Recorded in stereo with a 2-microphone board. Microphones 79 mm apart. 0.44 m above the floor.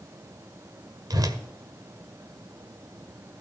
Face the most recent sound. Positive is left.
turn(degrees=-55)  # may be behind; listen again after turning